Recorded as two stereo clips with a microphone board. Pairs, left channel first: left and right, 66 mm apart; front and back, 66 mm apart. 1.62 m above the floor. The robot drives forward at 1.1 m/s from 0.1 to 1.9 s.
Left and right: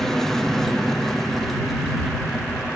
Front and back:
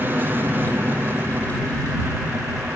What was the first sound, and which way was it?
An aircraft, 170° left.